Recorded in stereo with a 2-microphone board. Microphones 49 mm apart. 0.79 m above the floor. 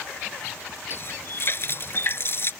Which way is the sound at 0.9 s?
45° left (ahead or behind).